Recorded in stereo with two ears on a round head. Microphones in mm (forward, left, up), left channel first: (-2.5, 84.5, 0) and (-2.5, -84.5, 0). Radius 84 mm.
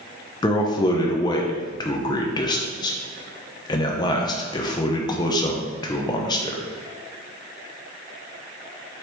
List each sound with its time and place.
0.4 s a man speaking: 20° left (ahead or behind), 0.5 m